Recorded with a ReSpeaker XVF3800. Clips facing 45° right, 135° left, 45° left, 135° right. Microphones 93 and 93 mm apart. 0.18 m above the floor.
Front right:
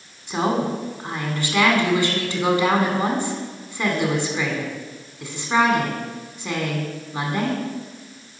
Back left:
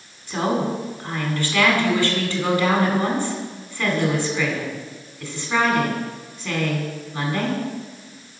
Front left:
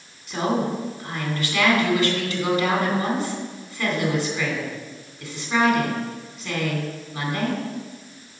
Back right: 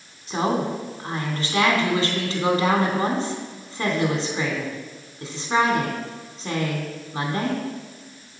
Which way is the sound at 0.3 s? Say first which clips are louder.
Even, even; 105° right.